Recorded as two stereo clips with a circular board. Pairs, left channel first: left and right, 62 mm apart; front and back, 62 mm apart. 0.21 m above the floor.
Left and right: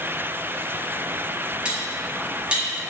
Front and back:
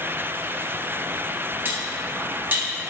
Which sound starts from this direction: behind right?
Cutlery clinking, at 1.6 s.